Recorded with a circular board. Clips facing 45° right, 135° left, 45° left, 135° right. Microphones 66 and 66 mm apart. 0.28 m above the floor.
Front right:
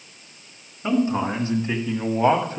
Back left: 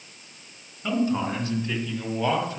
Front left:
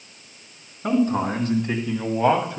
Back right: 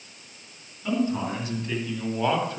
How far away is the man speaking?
About 3 m.